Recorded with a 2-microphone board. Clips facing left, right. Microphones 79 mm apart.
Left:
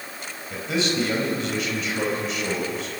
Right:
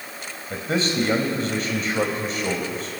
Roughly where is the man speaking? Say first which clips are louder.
Right 1 dB; right.